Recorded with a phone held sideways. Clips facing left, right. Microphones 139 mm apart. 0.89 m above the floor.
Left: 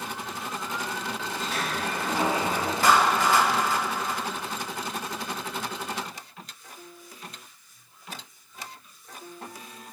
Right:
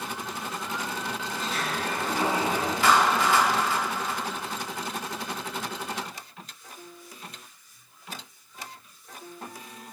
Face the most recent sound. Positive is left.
turn(degrees=40)  # may be behind; listen again after turning